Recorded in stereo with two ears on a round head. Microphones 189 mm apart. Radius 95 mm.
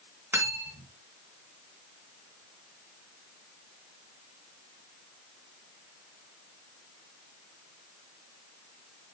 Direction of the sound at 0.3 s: 10° right (ahead or behind).